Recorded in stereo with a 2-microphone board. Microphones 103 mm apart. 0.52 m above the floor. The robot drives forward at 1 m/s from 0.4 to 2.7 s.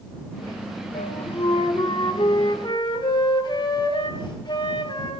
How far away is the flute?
About 2 m.